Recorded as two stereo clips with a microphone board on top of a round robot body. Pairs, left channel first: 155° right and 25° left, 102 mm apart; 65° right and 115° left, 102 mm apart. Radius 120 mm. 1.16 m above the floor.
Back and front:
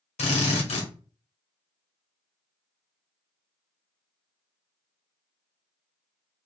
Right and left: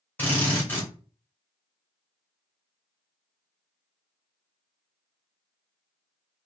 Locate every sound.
0.2 s a drill: 140° right, 1.3 m